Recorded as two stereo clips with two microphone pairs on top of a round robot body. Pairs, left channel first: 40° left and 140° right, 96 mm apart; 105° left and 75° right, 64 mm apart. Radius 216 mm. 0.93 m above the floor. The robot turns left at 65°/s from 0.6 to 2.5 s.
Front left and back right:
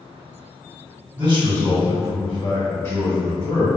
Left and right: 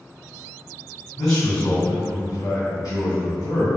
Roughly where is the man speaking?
Behind.